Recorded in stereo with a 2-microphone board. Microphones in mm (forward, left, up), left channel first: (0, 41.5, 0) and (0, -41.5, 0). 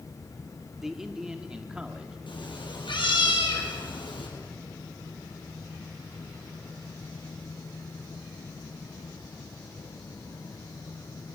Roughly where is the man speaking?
Centre.